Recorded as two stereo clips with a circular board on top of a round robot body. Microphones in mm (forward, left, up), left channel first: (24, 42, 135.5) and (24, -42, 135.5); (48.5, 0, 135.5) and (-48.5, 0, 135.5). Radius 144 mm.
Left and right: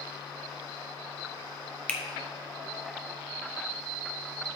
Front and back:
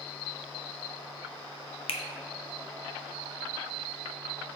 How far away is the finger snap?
About 0.8 m.